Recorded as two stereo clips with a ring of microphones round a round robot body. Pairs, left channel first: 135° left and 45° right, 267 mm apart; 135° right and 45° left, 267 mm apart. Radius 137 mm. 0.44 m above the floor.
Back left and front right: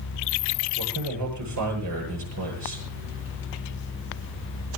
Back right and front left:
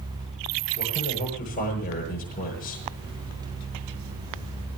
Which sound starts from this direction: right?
A man speaking, at 0.8 s.